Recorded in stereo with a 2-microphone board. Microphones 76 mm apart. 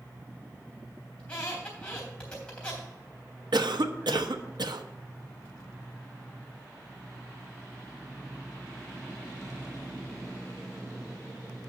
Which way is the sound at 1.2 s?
15° left (ahead or behind).